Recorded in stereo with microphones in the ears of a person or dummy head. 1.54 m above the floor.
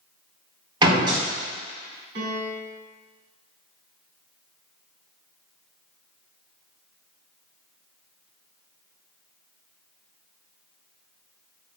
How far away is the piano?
About 3 m.